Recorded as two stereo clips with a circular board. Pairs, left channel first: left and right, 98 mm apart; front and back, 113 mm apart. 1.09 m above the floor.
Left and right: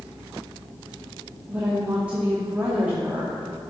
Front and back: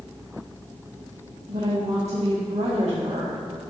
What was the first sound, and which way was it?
A woman speaking, 165° right.